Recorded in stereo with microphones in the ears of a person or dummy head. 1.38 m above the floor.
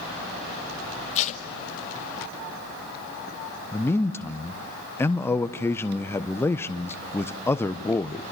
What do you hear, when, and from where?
1.1 s tape being pulled: 40° left (ahead or behind), 1.6 m
3.7 s a man speaking: 15° left (ahead or behind), 1.0 m